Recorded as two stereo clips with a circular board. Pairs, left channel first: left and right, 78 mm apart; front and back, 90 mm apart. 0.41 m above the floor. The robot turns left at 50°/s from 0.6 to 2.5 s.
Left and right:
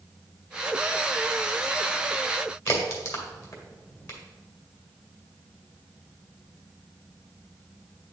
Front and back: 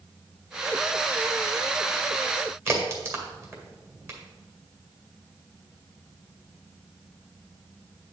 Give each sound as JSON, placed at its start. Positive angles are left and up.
{"t": 2.7, "sound": "a crack", "azimuth_deg": 130, "distance_m": 2.0}